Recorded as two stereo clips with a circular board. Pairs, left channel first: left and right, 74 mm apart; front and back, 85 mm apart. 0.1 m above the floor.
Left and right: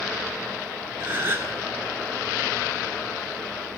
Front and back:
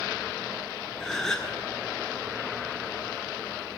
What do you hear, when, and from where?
1.0 s a gasp: 80° right, 1.0 m